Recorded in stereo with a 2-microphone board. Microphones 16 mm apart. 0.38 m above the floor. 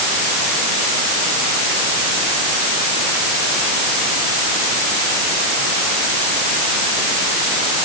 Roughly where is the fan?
No fan in this recording.